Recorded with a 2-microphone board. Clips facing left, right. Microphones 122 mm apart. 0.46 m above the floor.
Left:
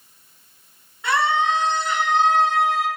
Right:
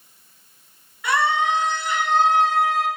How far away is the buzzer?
I don't hear a buzzer.